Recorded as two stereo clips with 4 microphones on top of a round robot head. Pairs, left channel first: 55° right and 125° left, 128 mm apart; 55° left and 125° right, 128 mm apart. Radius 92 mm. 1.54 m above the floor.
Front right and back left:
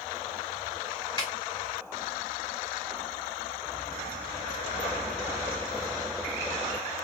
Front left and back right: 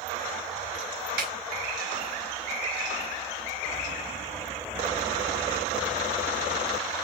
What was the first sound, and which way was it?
A snare drum, 120° right.